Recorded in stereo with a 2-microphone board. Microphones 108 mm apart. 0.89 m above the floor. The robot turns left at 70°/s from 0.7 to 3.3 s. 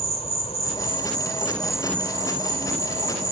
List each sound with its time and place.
0.0 s an insect: 70° left; by 3.3 s 110° right